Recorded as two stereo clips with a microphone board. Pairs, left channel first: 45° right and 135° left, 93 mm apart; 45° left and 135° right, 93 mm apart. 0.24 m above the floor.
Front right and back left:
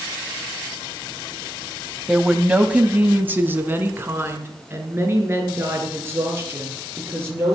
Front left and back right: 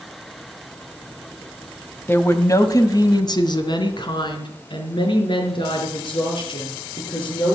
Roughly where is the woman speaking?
Ahead left.